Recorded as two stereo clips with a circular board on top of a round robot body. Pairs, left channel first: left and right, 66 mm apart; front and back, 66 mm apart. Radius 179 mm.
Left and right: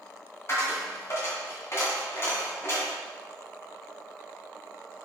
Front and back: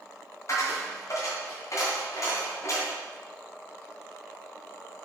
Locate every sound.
0.5 s a dropped coin: 40° left, 2 m